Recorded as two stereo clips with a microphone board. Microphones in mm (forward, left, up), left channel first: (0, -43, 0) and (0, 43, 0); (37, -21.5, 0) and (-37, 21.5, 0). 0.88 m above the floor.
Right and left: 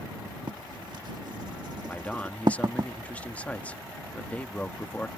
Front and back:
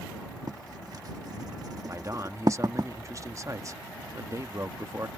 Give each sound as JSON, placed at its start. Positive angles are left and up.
{"t": 0.5, "sound": "writing", "azimuth_deg": 115}
{"t": 1.9, "sound": "a man speaking", "azimuth_deg": -160}